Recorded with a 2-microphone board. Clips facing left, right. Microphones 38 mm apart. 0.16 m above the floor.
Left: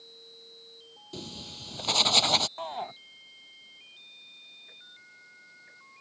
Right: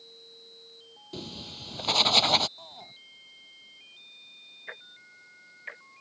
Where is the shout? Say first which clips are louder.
Left 12 dB; 55° left (ahead or behind).